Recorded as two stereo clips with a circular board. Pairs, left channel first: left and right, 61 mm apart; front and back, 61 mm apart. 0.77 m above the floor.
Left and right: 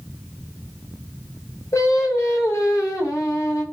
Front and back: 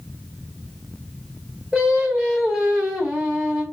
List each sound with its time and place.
1.7 s singing: 110° left, 1.8 m